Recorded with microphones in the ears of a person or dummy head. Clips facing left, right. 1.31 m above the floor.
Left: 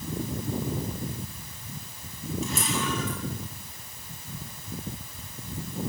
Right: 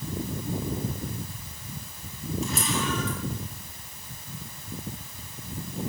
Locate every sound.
2.4 s a camera shutter: 65° right (ahead or behind), 8 m